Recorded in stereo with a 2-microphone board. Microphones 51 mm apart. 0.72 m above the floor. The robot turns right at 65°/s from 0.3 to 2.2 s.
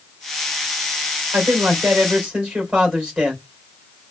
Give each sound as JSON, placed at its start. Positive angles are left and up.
{"t": 1.3, "sound": "a man speaking", "azimuth_deg": -75, "distance_m": 3.5}